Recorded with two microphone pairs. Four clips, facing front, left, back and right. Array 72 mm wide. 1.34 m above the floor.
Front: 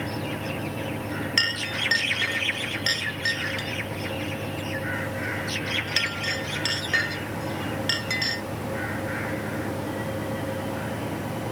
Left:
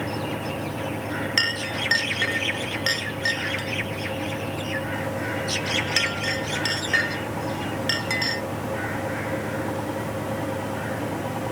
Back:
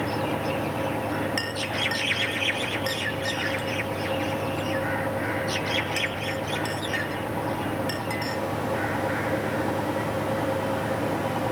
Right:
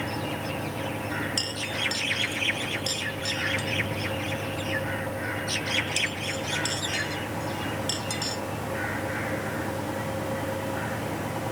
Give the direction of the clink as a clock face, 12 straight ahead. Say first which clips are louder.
Left 5 dB, front 1 dB; 10 o'clock.